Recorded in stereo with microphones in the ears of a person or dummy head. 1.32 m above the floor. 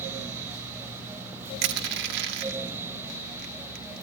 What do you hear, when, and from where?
1.6 s crushing: 70° right (ahead or behind), 1.9 m